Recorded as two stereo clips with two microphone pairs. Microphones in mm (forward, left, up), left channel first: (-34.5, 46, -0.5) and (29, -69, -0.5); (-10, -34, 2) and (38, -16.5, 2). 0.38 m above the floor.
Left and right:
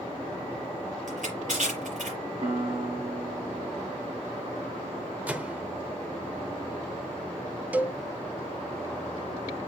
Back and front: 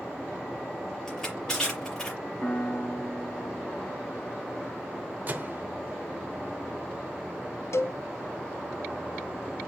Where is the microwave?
10° left, 0.9 m.